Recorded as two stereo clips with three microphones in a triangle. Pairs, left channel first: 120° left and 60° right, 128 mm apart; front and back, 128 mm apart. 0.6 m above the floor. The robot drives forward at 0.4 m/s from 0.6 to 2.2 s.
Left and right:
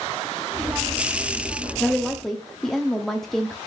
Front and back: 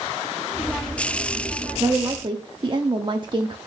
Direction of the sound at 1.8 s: 145° right.